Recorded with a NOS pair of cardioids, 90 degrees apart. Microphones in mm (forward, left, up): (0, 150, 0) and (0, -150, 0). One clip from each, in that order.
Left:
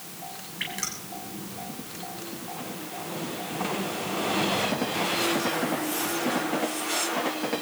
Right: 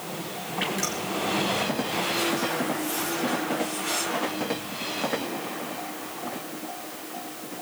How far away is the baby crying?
No baby crying in this recording.